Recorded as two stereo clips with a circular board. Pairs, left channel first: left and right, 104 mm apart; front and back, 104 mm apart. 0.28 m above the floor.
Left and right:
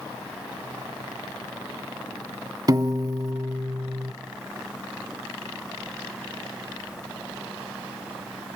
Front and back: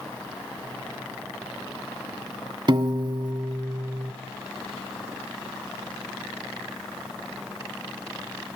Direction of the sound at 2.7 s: 140° right.